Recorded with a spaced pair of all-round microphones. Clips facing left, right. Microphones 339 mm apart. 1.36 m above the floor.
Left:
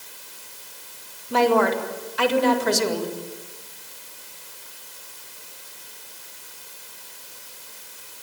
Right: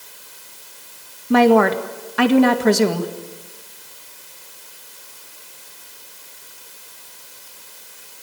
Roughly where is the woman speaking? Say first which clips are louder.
Right 6 dB; right.